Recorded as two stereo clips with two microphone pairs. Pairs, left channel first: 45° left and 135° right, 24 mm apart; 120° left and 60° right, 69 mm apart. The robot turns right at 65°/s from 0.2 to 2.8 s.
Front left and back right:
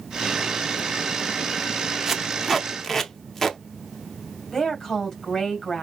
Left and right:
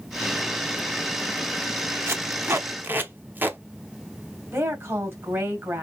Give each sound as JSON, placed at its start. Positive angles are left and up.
{"t": 2.1, "sound": "tape being pulled", "azimuth_deg": -65, "distance_m": 0.9}
{"t": 4.5, "sound": "a woman speaking", "azimuth_deg": -15, "distance_m": 2.5}